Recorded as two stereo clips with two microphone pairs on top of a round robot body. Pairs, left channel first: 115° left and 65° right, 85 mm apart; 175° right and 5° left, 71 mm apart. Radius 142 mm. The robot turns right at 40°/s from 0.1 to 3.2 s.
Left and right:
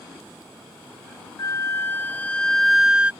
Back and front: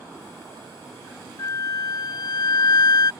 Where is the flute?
140° left; by 3.1 s 150° right.